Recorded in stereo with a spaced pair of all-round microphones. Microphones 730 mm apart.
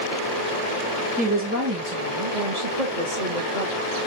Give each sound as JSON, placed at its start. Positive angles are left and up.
{"t": 1.2, "sound": "a woman speaking", "side_deg": -10, "distance_m": 2.5}